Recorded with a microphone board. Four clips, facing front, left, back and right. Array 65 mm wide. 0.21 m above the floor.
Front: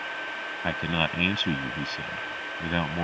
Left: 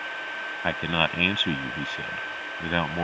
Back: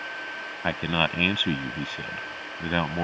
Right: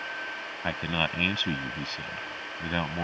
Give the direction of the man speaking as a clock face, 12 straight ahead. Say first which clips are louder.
Left 4 dB, back 2 dB; 8 o'clock.